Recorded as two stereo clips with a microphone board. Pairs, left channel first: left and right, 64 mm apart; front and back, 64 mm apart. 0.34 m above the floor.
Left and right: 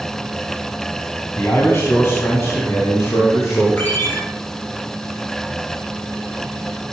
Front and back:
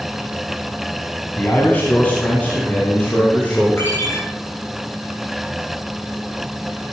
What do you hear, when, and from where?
1.4 s a man speaking: 50° left, 2.5 m; by 3.7 s 60° left, 4.5 m
3.8 s a ringtone: 40° left, 5 m